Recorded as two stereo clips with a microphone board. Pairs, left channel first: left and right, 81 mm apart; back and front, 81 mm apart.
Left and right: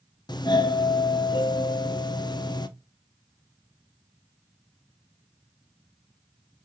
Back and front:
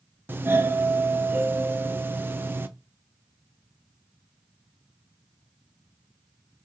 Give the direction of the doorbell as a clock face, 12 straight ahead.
10 o'clock.